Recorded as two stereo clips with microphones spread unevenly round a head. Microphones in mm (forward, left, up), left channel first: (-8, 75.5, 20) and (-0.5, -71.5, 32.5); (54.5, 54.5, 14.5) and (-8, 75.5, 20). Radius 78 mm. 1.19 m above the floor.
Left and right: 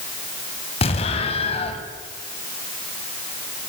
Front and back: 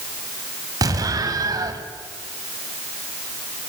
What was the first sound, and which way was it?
An explosion, 145° left.